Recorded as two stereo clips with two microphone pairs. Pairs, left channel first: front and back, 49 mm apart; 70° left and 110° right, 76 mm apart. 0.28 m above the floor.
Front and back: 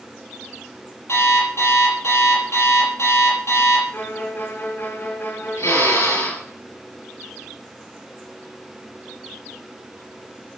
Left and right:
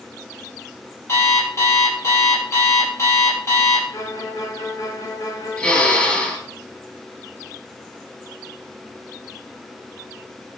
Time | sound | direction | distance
1.1 | an alarm clock | 15° left | 5.5 m
3.9 | a violin | 35° left | 2.5 m
5.6 | a drill | 5° right | 5.5 m